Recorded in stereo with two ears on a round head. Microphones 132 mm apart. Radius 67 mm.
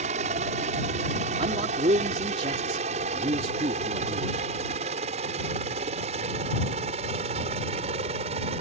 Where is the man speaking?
40° right (ahead or behind).